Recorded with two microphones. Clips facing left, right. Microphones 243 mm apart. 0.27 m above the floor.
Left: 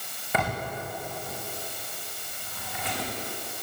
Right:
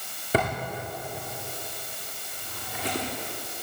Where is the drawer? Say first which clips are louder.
Right 4 dB; 35° right (ahead or behind), 8.5 m.